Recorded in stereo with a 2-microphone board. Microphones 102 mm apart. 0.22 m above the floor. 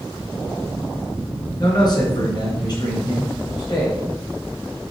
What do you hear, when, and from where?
1.6 s a man speaking: 45° left (ahead or behind), 3 m